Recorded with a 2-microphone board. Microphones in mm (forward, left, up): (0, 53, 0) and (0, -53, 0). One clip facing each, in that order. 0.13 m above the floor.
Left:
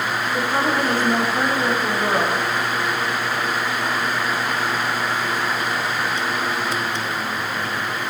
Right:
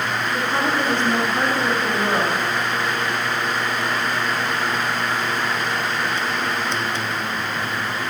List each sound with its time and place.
0.3 s a woman speaking: 5° left (ahead or behind), 7.5 m